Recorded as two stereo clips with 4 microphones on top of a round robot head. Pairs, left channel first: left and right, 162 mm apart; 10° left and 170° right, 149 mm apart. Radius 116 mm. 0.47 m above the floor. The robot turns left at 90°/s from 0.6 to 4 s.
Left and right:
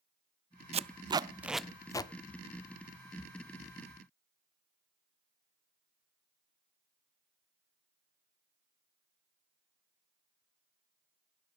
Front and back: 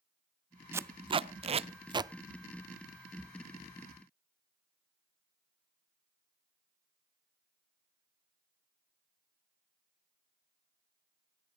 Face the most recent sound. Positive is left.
turn(degrees=-35)